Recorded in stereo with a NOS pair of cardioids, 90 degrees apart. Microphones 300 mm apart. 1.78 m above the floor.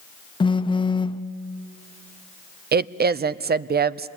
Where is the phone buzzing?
15° left, 0.7 m.